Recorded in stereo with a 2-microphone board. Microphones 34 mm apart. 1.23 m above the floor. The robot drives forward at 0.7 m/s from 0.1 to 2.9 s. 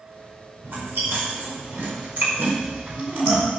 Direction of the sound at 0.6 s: 80° right.